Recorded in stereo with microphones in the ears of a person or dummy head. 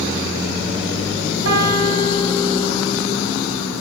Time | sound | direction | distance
1.4 | a piano | 85° right | 5 m